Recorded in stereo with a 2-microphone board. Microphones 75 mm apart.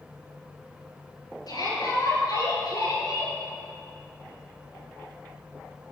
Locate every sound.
1.5 s a shout: 65° left (ahead or behind), 5.5 m; by 3.4 s 60° left (ahead or behind), 4.5 m